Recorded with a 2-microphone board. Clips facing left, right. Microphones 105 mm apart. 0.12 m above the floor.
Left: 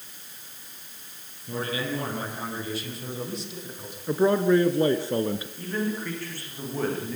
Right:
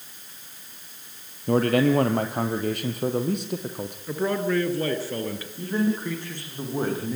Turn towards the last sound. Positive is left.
turn(degrees=-20)  # may be behind; listen again after turning